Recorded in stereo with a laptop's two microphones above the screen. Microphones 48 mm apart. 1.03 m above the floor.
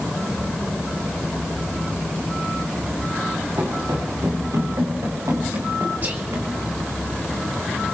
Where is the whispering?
40° right (ahead or behind), 1.2 m.